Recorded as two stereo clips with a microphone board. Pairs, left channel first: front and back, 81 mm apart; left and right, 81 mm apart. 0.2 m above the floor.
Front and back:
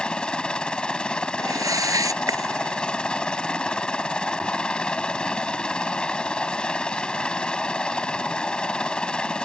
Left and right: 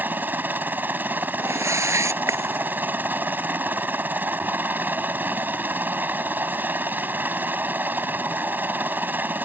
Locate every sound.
0.0 s a helicopter: 65° right
1.4 s a whoosh: 140° right